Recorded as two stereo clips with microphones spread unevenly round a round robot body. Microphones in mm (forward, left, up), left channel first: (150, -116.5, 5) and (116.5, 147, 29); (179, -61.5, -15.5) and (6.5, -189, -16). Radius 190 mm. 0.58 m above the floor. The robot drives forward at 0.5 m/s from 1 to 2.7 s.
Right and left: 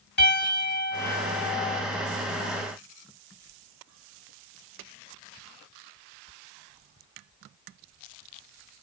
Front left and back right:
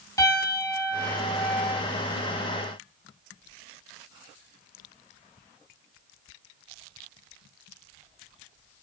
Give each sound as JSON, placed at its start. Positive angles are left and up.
{"t": 0.2, "sound": "a piano", "azimuth_deg": -40, "distance_m": 2.0}